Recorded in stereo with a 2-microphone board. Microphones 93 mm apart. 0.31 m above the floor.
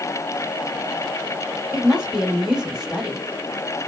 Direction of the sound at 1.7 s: 10° right (ahead or behind).